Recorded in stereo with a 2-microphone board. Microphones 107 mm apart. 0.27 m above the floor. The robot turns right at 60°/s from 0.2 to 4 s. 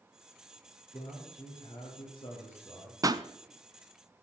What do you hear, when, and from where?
0.9 s a man speaking: 55° left, 5 m; by 2.9 s 175° left, 5 m
3.0 s a pop: 30° right (ahead or behind), 0.6 m; by 3.2 s 45° right (ahead or behind), 0.6 m